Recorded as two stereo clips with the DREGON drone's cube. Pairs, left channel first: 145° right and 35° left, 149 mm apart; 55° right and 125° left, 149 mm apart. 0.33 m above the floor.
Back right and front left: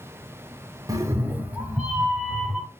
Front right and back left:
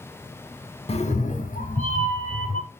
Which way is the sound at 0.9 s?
25° right.